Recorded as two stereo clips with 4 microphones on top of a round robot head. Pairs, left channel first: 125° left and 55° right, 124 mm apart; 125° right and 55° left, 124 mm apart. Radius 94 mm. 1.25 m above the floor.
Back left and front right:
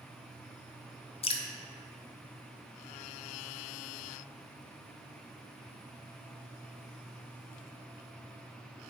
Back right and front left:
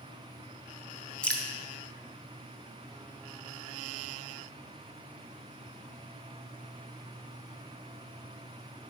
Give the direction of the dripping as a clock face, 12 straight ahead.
7 o'clock.